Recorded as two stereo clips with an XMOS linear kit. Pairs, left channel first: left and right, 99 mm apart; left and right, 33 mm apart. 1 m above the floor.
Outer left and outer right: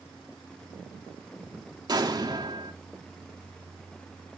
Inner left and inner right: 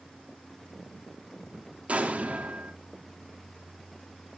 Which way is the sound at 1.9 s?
40° right (ahead or behind).